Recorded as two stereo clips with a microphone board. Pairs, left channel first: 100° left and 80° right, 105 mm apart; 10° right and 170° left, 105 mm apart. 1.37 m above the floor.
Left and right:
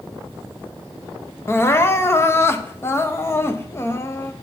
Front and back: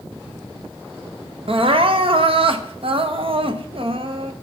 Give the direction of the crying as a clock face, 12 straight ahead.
7 o'clock.